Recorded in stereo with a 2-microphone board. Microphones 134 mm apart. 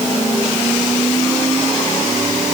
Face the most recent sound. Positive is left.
No sound to turn to.